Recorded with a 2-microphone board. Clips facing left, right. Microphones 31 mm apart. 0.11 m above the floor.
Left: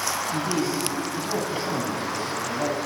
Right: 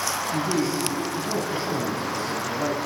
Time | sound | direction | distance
0.3 | a man speaking | 55° left (ahead or behind) | 3 m